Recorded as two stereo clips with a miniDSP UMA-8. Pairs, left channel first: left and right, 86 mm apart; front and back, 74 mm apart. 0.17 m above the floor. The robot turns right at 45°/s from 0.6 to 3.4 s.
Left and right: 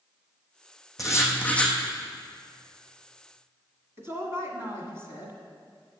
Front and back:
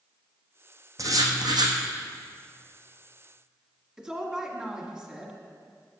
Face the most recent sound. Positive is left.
turn(degrees=-110)